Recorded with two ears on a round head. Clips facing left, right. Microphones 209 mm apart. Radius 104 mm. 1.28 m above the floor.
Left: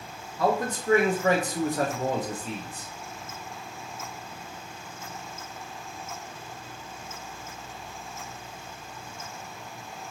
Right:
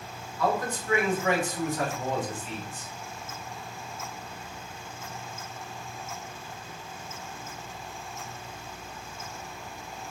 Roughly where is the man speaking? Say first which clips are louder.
Left 2 dB; left.